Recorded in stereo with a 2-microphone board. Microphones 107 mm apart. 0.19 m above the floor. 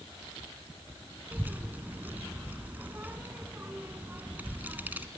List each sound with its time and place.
1.3 s a child speaking: 15° right (ahead or behind), 1.4 m